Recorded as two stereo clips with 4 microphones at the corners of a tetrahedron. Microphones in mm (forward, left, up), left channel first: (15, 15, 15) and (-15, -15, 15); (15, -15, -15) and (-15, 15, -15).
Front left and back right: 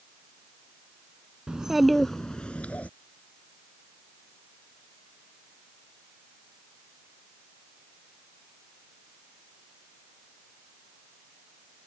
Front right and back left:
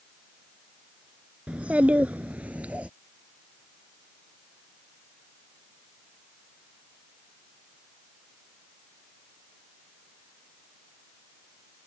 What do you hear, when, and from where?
1.5 s a child speaking: 170° left; by 2.9 s 85° left